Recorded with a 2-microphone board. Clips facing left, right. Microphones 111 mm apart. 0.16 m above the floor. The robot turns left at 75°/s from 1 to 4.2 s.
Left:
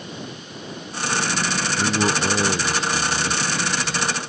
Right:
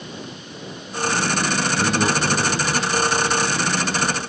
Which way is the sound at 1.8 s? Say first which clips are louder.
Left 1 dB; 175° right.